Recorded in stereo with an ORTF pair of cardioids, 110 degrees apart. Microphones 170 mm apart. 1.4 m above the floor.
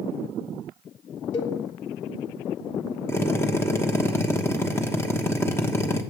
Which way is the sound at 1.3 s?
50° left.